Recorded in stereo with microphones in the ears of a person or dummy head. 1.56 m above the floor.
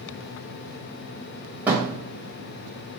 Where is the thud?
10° right (ahead or behind), 2.5 m.